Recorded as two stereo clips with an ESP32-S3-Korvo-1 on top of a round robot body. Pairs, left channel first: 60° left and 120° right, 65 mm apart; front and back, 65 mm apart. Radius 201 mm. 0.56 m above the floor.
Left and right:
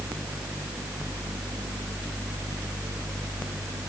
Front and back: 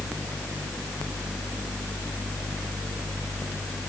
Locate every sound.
Only background noise.